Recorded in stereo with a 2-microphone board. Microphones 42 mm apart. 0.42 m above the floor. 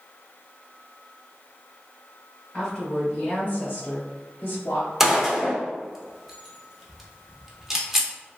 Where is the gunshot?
10° right (ahead or behind), 0.6 m.